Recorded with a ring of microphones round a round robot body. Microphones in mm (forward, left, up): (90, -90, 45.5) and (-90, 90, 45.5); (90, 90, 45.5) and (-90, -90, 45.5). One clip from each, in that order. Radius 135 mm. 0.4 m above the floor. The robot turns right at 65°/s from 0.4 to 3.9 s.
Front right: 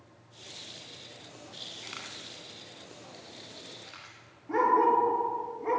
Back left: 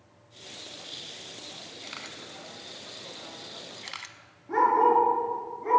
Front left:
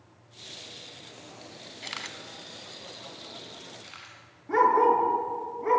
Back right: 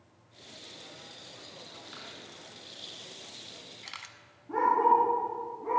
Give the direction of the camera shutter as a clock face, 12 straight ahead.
11 o'clock.